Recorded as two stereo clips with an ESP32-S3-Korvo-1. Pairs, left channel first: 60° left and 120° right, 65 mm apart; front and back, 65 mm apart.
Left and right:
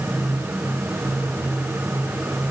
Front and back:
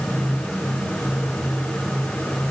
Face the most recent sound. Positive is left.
No sound to turn to.